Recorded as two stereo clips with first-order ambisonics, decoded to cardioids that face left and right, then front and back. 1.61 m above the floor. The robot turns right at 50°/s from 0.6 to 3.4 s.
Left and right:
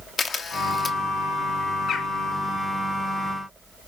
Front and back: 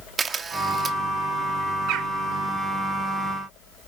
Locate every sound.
0.2 s a camera shutter: 130° left, 1.2 m; by 1.0 s 150° left, 1.2 m
1.9 s a bird: 145° left, 1.1 m; by 2.1 s 155° left, 1.1 m